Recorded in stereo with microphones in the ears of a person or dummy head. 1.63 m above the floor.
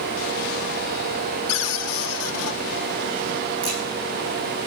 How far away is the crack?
About 10 m.